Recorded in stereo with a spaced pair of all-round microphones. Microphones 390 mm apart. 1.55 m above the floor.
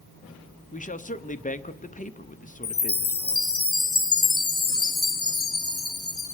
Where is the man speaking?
20° left (ahead or behind), 0.7 m.